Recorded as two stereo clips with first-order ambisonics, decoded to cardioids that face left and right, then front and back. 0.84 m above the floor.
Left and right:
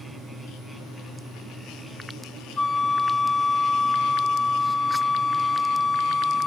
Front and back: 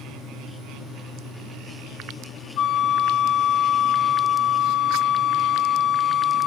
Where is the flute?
20° left, 1.3 m.